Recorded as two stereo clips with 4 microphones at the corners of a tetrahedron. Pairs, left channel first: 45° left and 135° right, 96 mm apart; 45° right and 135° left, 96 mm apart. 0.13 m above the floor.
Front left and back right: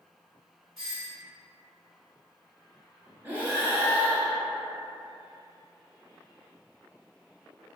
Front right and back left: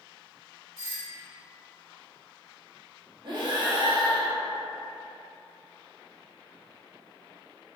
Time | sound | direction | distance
0.8 | a doorbell | 135° left | 1.9 m
3.2 | breathing | 155° left | 1.0 m